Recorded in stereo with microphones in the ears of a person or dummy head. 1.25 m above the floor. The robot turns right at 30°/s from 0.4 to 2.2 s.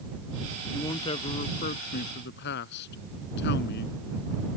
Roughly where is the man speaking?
Ahead.